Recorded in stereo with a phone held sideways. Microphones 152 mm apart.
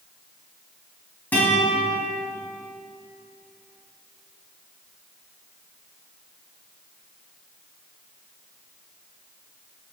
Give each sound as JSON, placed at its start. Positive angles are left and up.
{"t": 1.3, "sound": "a guitar", "side_deg": 10, "distance_m": 3.5}